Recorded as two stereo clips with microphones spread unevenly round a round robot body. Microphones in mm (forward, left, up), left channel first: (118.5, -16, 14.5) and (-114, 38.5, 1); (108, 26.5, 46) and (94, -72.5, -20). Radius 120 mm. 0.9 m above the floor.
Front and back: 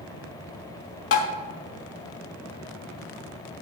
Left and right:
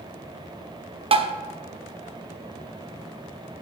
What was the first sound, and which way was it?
Tapping, 50° right.